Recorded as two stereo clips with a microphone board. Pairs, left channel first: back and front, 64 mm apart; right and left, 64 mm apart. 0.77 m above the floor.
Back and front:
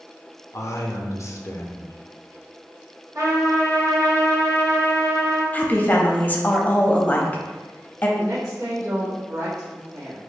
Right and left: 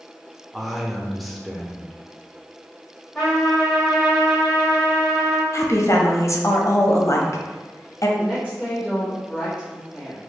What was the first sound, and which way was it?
A man speaking, 175° left.